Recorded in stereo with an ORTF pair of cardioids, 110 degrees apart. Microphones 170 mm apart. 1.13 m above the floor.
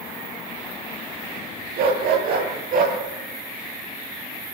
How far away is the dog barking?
About 9 m.